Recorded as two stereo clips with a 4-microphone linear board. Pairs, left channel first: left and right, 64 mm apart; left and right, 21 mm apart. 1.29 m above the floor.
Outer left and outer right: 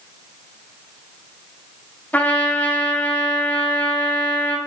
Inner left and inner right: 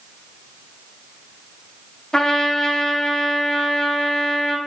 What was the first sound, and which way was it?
A trumpet, 25° left (ahead or behind).